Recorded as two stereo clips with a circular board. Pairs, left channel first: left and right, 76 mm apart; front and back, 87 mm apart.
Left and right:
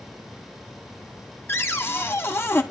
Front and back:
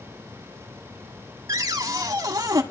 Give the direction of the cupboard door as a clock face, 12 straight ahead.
7 o'clock.